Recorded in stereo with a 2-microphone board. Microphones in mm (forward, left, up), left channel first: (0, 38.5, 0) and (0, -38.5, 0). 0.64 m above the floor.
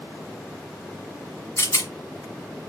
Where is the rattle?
40° left (ahead or behind), 1.0 m.